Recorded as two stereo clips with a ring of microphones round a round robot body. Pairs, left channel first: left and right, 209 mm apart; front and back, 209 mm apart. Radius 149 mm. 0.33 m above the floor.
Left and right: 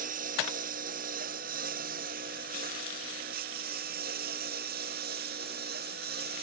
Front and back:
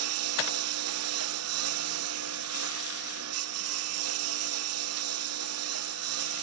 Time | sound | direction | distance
0.0 | a lawn mower | 155° right | ?